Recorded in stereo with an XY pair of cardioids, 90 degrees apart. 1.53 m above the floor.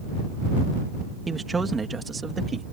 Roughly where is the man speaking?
Ahead right.